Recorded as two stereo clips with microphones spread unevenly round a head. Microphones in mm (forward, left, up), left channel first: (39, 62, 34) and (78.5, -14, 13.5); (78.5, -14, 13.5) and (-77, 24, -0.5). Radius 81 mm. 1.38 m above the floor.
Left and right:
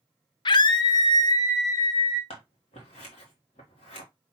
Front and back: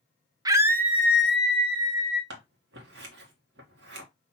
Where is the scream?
95° left, 0.5 m; by 2.2 s 75° left, 2.5 m.